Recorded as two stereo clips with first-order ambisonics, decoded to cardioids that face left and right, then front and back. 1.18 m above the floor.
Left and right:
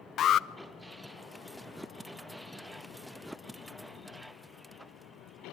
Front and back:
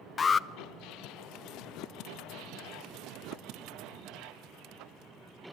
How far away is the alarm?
About 0.6 m.